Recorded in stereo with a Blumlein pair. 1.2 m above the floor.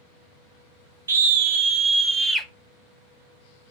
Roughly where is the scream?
Right.